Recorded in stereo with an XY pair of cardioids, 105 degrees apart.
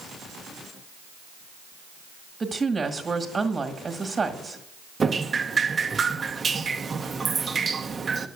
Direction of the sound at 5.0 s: 35° right.